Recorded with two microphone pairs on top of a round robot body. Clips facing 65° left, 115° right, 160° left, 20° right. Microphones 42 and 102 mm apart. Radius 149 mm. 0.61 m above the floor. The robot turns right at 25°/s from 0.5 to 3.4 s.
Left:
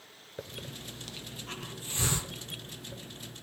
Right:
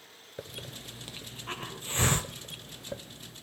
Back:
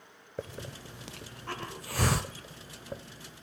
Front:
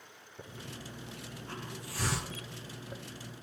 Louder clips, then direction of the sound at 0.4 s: Even, back 6 dB; 160° left.